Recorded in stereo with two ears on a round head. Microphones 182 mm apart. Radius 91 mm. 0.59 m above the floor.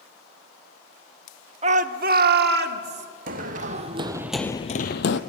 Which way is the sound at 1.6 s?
30° right (ahead or behind).